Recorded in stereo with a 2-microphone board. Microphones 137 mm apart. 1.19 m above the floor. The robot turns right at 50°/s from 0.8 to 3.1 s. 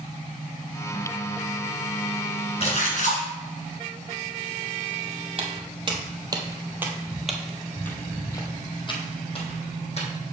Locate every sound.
2.6 s a splash: 45° left (ahead or behind), 2.5 m; by 3.2 s 65° left (ahead or behind), 2.5 m
5.4 s footsteps: 45° right (ahead or behind), 1.7 m; by 10.1 s 50° left (ahead or behind), 2 m